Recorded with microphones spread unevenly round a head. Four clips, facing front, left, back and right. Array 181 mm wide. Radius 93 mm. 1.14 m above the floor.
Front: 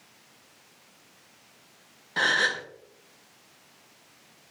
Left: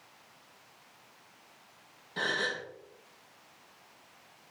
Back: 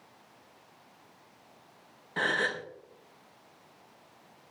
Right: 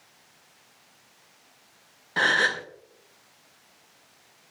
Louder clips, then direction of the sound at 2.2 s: Right 9 dB, front 4 dB; 80° right.